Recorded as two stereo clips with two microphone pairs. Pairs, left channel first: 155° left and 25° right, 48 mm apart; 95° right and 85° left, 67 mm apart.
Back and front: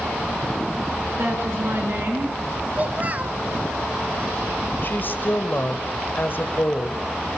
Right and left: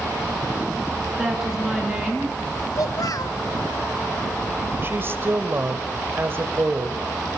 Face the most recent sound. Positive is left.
turn(degrees=130)